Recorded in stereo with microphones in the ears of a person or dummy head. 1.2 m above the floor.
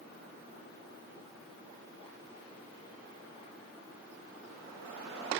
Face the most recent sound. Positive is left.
No sound to turn to.